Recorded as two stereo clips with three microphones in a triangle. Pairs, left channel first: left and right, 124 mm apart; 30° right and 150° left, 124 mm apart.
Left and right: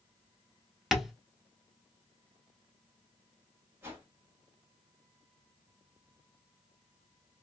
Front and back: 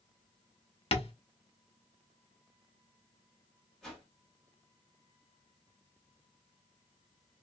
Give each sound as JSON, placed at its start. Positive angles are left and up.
{"t": 0.9, "sound": "tapping", "azimuth_deg": 0, "distance_m": 0.6}
{"t": 3.8, "sound": "a whoosh", "azimuth_deg": -110, "distance_m": 1.1}